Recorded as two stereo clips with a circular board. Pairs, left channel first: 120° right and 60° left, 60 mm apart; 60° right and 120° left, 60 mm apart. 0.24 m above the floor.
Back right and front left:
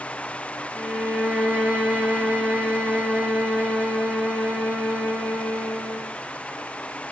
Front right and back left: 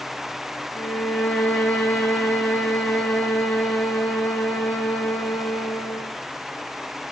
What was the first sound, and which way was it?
A violin, 5° right.